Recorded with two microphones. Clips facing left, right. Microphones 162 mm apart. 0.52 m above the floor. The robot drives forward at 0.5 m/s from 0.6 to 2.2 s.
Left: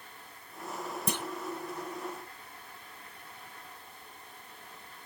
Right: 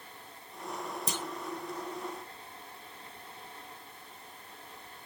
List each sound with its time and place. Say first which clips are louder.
1.1 s a clunk: left 5 dB; 55° left (ahead or behind), 0.7 m; by 1.2 s 60° left (ahead or behind), 0.7 m